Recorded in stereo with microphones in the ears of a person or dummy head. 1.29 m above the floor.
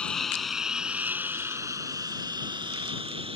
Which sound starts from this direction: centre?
A lawn mower, at 0.0 s.